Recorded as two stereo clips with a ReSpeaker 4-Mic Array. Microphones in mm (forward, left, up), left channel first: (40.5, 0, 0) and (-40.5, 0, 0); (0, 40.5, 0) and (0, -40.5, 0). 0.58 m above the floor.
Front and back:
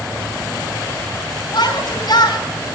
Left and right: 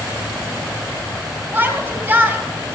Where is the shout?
25° right, 3 m.